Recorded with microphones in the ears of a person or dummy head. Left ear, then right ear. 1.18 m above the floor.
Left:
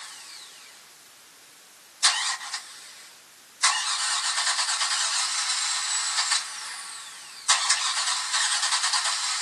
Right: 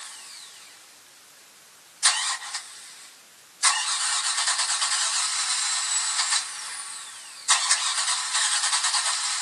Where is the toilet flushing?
No toilet flushing in this recording.